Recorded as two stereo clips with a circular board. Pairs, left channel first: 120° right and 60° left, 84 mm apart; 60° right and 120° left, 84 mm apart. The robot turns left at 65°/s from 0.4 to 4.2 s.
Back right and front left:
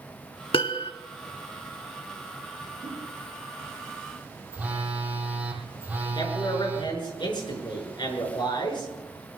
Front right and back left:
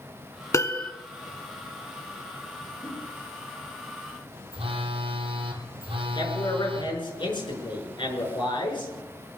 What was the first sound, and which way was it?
A piano, 115° right.